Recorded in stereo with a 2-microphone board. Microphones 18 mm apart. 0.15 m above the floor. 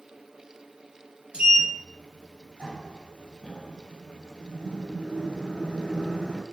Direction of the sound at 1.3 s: 55° right (ahead or behind).